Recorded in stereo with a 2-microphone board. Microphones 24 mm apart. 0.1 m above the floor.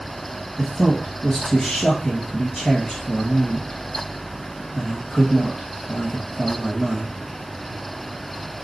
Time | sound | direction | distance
0.6 | a man speaking | 35° left (ahead or behind) | 1.6 m